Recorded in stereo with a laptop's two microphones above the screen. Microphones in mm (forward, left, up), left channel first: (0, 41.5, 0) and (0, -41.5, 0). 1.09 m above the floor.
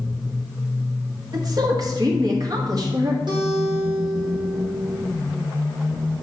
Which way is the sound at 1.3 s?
50° right (ahead or behind).